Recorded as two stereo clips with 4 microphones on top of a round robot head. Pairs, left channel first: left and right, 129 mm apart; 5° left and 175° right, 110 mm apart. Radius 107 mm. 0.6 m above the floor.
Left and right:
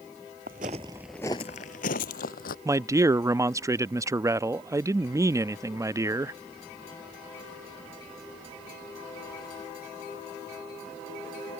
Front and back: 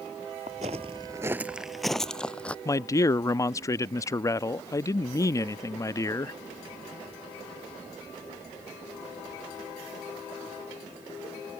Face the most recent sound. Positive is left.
turn(degrees=-40)